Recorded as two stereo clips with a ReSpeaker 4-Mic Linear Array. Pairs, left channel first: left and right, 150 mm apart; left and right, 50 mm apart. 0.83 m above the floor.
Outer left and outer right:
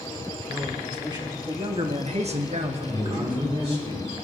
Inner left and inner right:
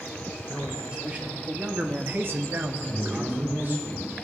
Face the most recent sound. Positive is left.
turn(degrees=-40)  # may be behind; listen again after turning